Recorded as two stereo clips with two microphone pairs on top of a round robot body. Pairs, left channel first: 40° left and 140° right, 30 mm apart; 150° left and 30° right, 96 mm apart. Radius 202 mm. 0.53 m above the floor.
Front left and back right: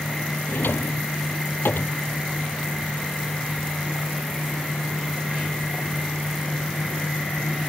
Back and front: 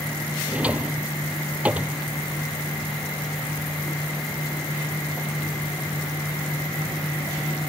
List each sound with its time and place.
0.5 s a drawer: 50° left